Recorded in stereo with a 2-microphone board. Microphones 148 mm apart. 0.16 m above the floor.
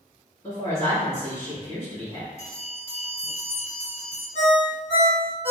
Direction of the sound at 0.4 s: 25° left (ahead or behind).